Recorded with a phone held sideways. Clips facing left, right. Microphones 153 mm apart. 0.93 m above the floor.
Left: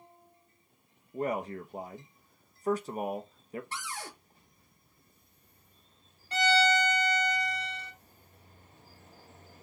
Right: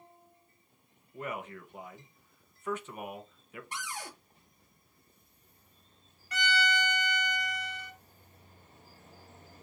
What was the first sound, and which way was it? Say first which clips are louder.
A man speaking: left 7 dB; 35° left (ahead or behind).